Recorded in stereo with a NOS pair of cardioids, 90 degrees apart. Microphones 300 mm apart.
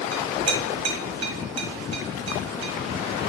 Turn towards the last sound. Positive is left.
turn(degrees=-60)